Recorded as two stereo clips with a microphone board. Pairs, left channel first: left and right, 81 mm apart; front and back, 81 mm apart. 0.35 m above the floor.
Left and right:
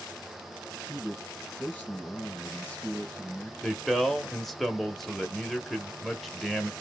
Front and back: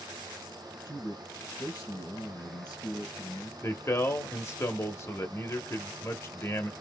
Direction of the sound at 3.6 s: 5° left.